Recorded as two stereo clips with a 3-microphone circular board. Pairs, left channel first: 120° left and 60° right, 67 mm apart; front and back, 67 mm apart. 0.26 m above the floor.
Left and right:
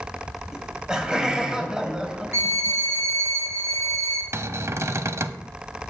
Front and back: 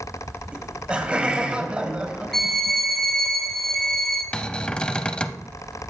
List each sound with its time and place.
0.5 s laughter: 125° right, 1.3 m
2.3 s a violin: 85° right, 2 m
4.3 s a cupboard door: 70° right, 0.6 m